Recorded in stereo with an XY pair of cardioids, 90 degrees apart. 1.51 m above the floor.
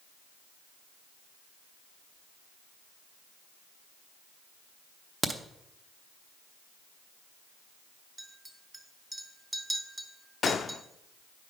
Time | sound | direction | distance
5.2 | a crack | 30° right | 1.0 m
8.2 | a clink | 25° right | 1.5 m
10.4 | a gunshot | 55° left | 0.5 m